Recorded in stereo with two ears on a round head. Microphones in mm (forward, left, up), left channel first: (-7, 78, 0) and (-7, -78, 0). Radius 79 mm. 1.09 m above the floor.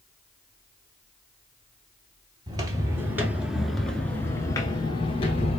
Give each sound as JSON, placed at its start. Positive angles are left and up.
{"t": 2.5, "sound": "footsteps", "side_deg": -25, "distance_m": 1.3}